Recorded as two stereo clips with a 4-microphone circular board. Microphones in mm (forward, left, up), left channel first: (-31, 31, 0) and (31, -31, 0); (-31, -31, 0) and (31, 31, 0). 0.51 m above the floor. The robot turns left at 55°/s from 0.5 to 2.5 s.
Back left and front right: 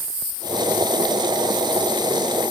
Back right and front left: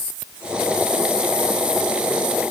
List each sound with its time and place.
Only background noise.